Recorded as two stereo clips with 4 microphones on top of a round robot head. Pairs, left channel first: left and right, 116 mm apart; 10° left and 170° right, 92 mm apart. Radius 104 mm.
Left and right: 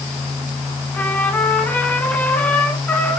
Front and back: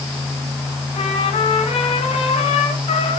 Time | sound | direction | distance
0.9 | a trumpet | 15° left | 3.5 m